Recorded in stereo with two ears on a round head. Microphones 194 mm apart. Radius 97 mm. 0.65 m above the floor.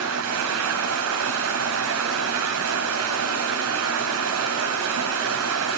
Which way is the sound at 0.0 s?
75° right (ahead or behind).